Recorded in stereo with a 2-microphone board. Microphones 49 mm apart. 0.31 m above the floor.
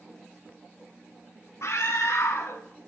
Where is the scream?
70° left (ahead or behind), 2.5 m.